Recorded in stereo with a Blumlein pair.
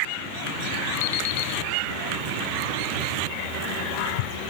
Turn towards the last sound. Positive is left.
turn(degrees=60)